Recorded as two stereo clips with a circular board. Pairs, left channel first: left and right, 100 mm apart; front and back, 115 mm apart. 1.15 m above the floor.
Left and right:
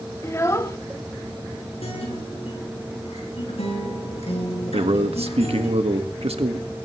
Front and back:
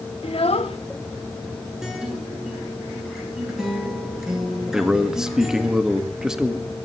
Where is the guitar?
95° left, 7.5 m.